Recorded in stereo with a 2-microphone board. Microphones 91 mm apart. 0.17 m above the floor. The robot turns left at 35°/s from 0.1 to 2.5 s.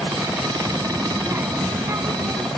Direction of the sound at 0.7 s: 15° right.